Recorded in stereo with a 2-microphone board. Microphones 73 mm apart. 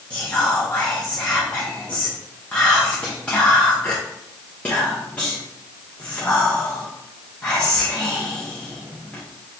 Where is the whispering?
15° left (ahead or behind), 1.1 m.